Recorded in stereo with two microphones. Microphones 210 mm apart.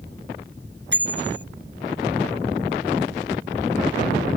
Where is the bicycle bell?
60° right (ahead or behind).